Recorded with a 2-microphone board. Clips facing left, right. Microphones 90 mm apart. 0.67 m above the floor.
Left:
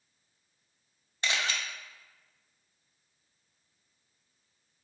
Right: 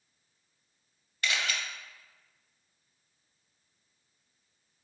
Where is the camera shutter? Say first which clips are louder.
Even; 25° left (ahead or behind), 0.5 m.